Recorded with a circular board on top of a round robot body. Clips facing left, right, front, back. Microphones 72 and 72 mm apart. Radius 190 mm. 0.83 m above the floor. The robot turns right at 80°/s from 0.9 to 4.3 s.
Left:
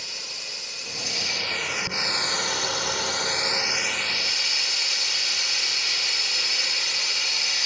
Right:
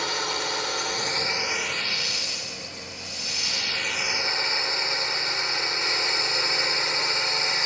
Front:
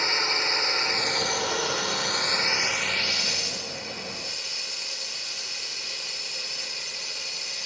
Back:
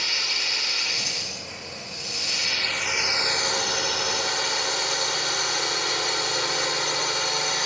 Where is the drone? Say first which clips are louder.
Right 13 dB, front 4 dB; 60° right; by 7.7 s 150° right.